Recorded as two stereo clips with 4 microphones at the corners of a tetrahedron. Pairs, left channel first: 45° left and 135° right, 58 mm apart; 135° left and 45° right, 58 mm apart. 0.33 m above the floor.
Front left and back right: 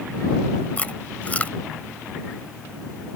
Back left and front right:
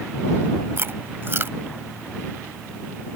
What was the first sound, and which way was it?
Chewing, 15° right.